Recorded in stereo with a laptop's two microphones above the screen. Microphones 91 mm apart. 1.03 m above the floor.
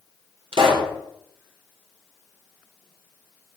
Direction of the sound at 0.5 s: 70° right (ahead or behind).